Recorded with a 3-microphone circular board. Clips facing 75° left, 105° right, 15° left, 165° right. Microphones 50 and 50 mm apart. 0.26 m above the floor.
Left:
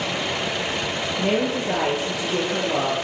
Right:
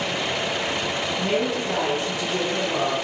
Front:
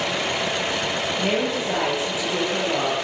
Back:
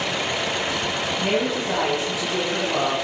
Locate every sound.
1.2 s a woman speaking: 85° left, 4.5 m